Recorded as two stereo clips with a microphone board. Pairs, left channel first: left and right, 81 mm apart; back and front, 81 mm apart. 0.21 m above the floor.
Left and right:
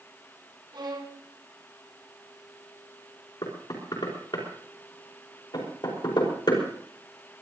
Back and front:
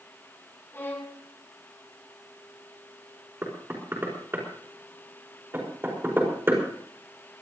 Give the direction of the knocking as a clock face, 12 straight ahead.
10 o'clock.